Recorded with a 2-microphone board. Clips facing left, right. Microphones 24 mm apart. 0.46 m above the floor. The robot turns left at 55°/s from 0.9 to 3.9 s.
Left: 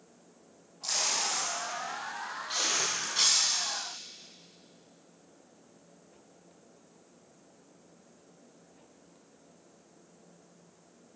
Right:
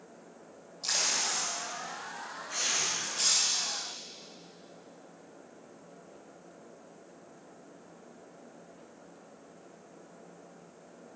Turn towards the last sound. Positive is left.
turn(degrees=20)